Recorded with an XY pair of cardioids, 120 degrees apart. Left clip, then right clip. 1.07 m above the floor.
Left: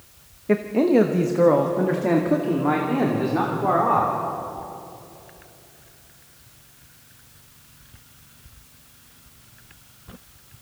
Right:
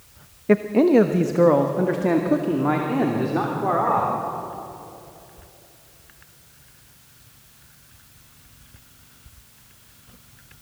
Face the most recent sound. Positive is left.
turn(degrees=-5)